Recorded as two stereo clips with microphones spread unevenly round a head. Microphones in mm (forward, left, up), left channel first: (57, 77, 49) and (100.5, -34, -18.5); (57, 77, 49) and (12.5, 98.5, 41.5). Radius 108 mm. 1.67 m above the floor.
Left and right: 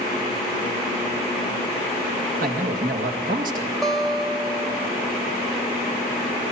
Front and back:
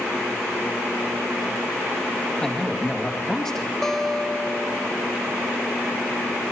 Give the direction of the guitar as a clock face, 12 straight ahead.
10 o'clock.